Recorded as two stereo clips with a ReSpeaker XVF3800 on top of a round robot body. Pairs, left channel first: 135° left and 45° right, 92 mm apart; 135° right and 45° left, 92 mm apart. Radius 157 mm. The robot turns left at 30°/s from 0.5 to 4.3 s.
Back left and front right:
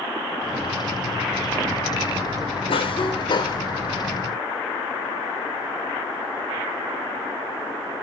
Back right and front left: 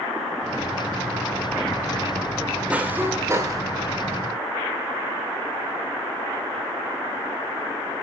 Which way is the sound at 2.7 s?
120° left.